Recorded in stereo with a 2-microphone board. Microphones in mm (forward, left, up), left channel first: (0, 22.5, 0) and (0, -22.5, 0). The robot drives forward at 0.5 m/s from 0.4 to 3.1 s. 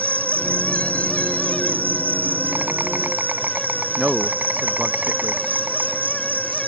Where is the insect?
50° right (ahead or behind); by 6.7 s 40° right (ahead or behind).